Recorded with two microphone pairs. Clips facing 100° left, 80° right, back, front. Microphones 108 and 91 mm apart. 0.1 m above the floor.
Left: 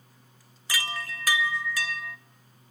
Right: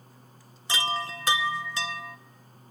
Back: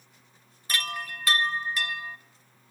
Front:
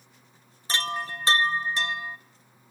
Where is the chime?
35° right, 0.8 m.